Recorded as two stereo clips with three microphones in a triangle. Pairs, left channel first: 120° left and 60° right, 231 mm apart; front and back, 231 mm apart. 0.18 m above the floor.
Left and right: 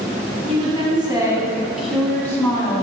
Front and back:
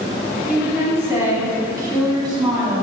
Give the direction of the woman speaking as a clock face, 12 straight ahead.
3 o'clock.